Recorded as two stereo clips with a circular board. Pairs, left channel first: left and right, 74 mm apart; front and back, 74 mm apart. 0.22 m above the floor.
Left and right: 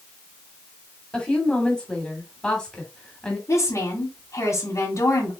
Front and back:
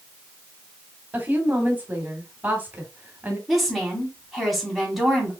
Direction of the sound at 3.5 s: 90° left.